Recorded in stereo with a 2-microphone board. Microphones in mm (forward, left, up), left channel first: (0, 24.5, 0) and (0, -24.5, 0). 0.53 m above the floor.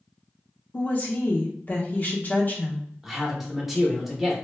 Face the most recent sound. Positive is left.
turn(degrees=-5)  # may be behind; listen again after turning